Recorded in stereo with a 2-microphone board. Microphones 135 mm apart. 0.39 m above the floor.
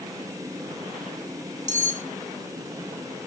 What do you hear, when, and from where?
1.7 s cutlery clinking: 70° right (ahead or behind), 1.7 m